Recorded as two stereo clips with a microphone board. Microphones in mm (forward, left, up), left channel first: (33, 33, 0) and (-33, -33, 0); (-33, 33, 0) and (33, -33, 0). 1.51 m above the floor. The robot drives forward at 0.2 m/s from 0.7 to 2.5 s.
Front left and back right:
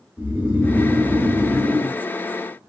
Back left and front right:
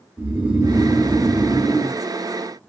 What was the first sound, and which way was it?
Snoring, 100° right.